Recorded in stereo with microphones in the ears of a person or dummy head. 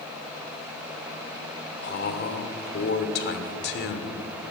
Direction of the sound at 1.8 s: 50° left (ahead or behind).